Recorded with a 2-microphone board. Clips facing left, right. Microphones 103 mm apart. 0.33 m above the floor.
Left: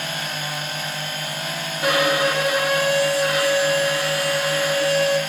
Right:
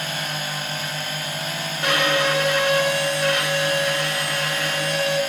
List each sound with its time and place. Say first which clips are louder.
1.8 s a violin: left 2 dB; 5° left (ahead or behind), 2.5 m